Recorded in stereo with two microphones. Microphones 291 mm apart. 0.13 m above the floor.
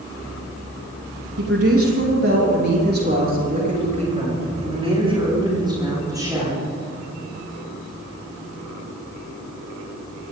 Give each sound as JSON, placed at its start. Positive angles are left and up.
{"t": 1.4, "sound": "a woman speaking", "side_deg": -55, "distance_m": 5.0}